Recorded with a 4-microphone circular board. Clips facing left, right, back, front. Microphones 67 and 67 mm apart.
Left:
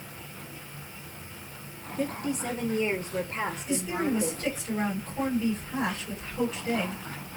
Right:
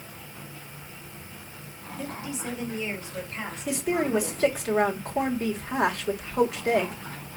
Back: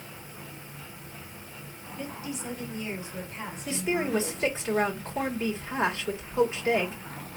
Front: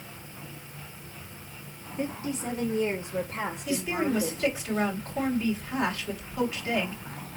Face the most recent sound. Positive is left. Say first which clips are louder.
# right 5 dB, back 1 dB
turn(degrees=-120)